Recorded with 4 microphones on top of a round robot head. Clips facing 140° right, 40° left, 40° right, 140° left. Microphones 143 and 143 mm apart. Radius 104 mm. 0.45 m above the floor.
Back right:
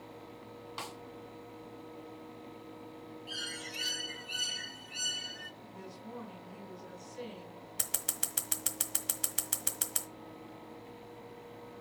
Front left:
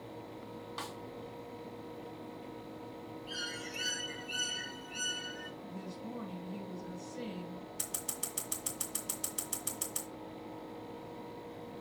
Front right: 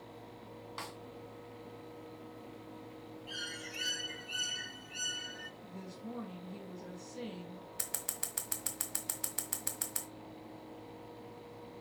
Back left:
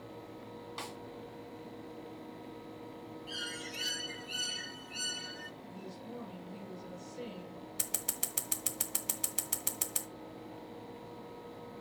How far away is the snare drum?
About 0.9 m.